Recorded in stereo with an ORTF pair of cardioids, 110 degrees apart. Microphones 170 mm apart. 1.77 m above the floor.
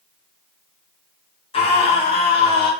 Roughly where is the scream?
Ahead left.